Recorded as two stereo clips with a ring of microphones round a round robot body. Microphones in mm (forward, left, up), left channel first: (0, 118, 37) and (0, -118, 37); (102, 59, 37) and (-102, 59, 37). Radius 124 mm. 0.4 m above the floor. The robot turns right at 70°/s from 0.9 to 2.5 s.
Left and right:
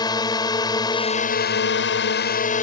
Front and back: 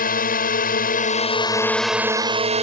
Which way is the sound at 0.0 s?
25° left.